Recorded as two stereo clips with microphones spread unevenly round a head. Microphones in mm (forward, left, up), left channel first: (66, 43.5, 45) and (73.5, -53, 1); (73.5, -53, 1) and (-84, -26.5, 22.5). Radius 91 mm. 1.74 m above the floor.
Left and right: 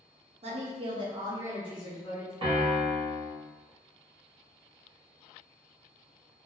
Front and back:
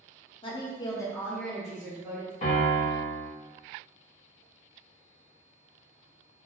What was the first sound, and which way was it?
A woman speaking, 65° right.